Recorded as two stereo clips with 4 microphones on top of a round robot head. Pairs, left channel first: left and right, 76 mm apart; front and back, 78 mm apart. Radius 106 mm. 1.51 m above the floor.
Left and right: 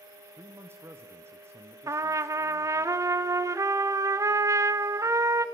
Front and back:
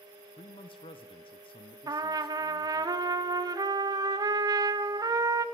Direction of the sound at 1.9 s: 140° right.